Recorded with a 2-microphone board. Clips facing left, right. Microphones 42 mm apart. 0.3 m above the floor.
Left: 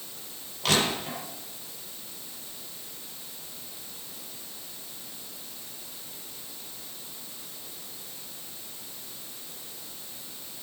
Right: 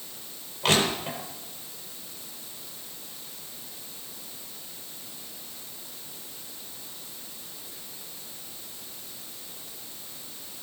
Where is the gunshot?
I don't hear a gunshot.